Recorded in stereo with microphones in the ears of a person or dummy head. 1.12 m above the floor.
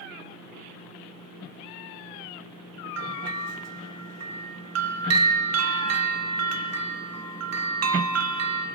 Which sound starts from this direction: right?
A bell, at 3.0 s.